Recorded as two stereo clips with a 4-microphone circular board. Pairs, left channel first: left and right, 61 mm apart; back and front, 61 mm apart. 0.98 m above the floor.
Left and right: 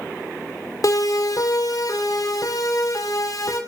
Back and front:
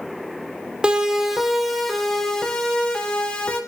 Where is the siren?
75° left, 3 m; by 3.6 s 110° left, 6.5 m.